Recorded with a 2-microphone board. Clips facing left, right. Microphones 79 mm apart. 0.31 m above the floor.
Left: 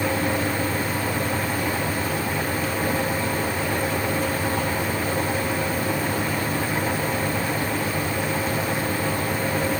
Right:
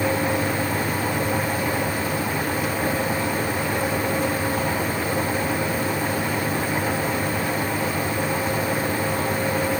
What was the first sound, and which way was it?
Only background noise.